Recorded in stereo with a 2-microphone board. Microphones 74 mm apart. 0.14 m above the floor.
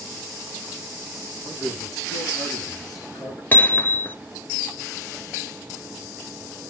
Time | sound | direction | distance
1.4 | a man speaking | 65° left (ahead or behind) | 7.5 m
3.5 | hammering | 30° left (ahead or behind) | 1.1 m